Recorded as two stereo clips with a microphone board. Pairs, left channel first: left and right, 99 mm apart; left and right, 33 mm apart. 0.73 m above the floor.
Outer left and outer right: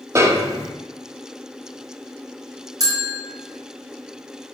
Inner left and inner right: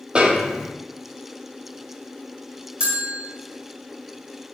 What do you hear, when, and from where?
0.1 s a snare drum: 30° right (ahead or behind), 0.7 m
2.8 s a bell: 35° right (ahead or behind), 1.5 m